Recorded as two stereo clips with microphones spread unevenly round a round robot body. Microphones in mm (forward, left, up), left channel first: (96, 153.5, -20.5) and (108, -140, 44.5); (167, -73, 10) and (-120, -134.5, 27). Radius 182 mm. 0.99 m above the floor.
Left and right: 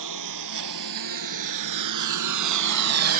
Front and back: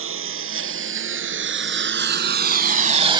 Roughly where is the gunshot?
I don't hear a gunshot.